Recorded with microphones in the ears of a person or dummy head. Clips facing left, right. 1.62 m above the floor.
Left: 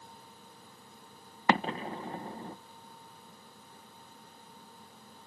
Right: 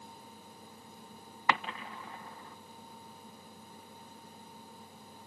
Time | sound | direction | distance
1.5 | an explosion | 40° left (ahead or behind) | ?